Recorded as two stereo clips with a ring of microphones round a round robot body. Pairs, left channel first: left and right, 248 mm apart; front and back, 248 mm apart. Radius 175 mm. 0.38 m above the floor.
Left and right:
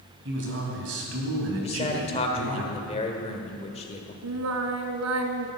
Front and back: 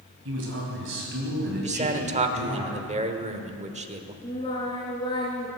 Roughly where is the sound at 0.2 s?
Behind right.